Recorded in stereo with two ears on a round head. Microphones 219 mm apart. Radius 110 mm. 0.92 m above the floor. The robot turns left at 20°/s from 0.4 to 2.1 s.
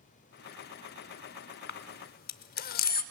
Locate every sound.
1.7 s a camera shutter: 45° left (ahead or behind), 0.8 m; by 3.0 s 40° left (ahead or behind), 0.8 m